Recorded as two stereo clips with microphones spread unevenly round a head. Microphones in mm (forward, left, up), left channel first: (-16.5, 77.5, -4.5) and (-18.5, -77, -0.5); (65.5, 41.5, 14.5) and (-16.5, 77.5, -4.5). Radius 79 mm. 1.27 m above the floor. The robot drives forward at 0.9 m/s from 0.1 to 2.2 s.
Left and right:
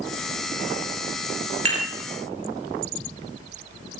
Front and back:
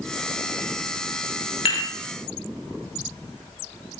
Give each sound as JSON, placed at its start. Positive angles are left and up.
{"t": 1.6, "sound": "dishes clattering", "azimuth_deg": -40, "distance_m": 2.5}